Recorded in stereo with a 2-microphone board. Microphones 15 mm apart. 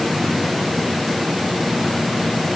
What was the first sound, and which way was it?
Only background noise.